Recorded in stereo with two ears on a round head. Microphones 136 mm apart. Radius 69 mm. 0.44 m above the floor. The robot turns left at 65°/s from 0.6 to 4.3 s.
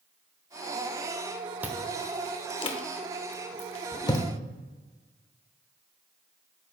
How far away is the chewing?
About 0.7 m.